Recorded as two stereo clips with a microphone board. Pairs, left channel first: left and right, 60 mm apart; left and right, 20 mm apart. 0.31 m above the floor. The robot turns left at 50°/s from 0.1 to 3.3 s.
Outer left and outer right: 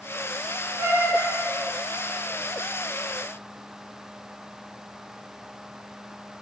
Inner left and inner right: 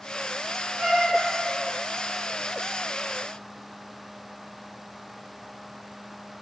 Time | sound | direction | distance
0.8 | a cat meowing | 45° right (ahead or behind) | 1.5 m